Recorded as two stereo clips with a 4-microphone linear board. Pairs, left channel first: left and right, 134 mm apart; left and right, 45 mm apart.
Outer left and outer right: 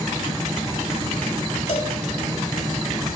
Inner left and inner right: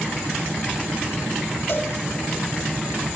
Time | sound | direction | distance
1.7 | a cowbell | 60° left (ahead or behind) | 3 m